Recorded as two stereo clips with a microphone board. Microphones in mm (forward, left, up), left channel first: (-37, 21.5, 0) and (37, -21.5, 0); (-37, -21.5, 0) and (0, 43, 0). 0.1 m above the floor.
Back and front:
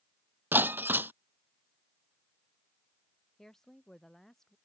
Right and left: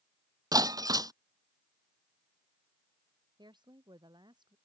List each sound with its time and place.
0.5 s breaking glass: 35° left
3.4 s a woman speaking: 65° left